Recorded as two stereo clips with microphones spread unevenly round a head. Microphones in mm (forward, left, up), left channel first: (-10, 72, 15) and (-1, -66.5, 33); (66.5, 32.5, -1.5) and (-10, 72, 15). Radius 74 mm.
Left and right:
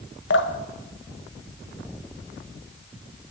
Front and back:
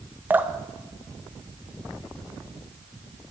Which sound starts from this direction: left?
Dripping, at 0.3 s.